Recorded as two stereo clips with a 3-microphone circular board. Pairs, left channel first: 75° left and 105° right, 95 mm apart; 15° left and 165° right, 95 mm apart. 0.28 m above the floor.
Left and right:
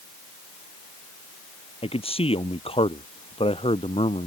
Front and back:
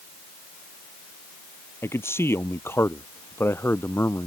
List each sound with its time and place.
1.8 s a man speaking: 80° left